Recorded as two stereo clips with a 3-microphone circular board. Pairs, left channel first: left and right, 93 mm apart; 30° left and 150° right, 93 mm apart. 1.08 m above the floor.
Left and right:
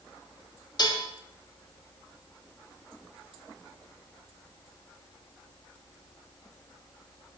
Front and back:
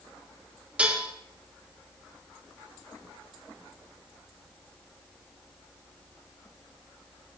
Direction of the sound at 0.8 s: 135° left.